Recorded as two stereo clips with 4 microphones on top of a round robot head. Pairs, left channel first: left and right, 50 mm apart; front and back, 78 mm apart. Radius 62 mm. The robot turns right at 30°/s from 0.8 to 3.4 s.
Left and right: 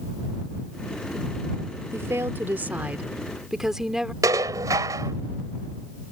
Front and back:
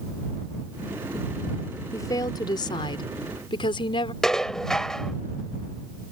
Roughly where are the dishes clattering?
Right.